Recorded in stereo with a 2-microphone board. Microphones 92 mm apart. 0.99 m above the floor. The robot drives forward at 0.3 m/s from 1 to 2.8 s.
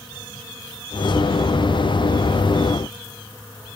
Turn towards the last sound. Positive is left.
No sound to turn to.